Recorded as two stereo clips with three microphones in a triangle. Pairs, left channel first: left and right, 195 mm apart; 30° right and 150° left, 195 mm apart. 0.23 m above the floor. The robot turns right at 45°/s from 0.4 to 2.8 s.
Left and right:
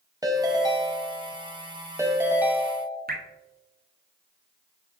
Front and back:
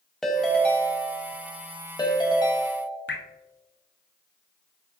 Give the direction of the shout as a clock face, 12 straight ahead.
I don't hear a shout.